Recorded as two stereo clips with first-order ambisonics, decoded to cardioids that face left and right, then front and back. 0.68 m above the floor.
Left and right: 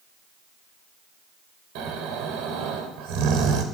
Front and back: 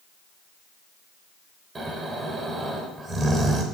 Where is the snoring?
110° right, 1.1 m.